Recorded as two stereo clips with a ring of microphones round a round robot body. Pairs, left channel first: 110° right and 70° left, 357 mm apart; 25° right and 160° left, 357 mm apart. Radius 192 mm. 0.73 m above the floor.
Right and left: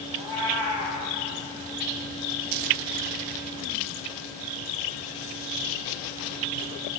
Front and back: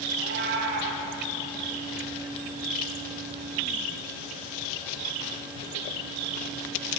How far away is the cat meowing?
About 2.5 m.